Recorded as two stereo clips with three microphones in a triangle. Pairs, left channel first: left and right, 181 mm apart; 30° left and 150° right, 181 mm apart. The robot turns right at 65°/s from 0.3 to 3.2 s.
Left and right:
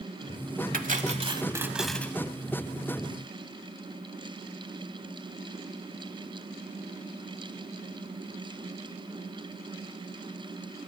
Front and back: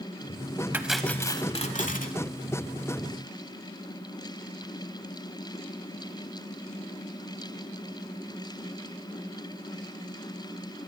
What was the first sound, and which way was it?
Cutlery clinking, 75° right.